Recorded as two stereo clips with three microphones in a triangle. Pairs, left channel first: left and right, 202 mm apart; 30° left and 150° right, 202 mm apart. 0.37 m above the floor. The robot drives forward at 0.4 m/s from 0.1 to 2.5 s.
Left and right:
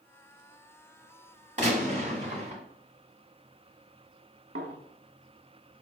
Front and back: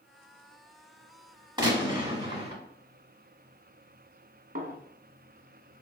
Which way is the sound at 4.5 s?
105° right.